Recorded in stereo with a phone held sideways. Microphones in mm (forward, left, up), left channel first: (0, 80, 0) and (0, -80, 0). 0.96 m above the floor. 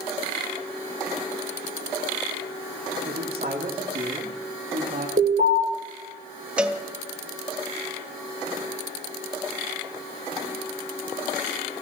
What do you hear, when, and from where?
3.0 s a man speaking: 75° right (ahead or behind), 2.5 m; by 5.1 s 50° right (ahead or behind), 1.8 m
5.2 s an alarm: 65° right (ahead or behind), 6.5 m
6.6 s a cowbell: 5° right (ahead or behind), 0.8 m